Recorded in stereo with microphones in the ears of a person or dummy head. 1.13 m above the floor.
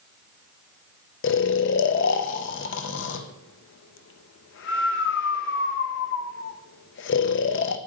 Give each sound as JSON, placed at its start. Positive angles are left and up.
{"t": 1.2, "sound": "snoring", "side_deg": 55, "distance_m": 0.6}